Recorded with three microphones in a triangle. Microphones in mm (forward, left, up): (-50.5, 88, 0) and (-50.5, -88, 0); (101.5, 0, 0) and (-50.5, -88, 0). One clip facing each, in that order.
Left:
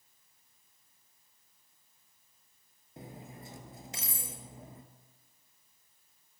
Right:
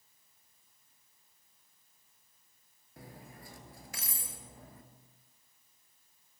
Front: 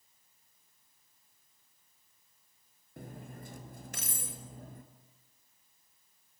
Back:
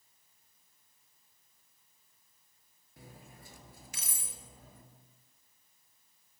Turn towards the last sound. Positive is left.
turn(degrees=30)